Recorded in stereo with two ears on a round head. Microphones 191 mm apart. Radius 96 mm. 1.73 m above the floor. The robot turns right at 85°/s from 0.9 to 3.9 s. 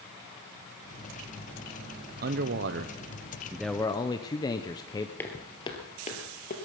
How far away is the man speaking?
About 0.7 m.